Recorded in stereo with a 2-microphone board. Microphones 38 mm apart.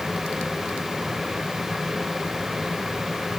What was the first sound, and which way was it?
Only background noise.